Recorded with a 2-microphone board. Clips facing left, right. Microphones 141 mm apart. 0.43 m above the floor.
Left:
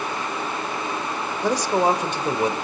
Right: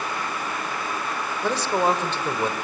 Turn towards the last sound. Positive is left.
turn(degrees=15)  # may be behind; listen again after turning